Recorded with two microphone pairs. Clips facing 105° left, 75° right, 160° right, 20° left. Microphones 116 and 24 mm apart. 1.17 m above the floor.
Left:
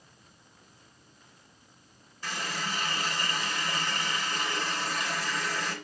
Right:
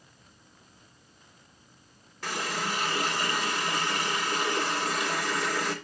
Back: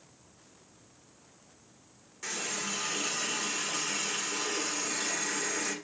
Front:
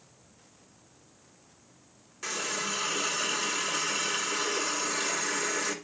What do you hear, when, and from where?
2.2 s a running tap: 55° right, 2.5 m